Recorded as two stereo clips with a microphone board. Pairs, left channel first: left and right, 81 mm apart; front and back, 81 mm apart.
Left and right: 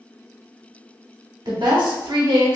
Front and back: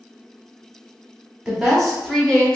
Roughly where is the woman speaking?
Right.